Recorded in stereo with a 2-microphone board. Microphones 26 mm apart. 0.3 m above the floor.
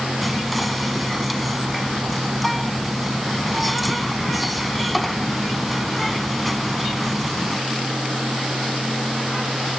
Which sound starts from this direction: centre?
Whispering, at 0.2 s.